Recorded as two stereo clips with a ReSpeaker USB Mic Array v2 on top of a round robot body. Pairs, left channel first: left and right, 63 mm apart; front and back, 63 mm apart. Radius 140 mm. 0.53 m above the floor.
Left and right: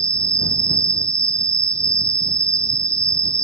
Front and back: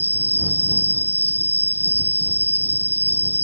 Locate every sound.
0.0 s an insect: 55° right